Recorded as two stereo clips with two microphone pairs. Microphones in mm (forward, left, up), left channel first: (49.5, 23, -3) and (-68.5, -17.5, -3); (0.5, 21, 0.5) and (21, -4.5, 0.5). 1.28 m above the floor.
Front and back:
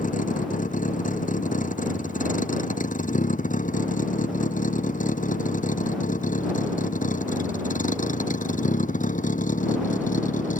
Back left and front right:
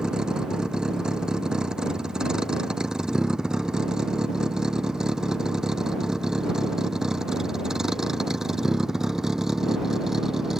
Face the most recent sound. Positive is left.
turn(degrees=30)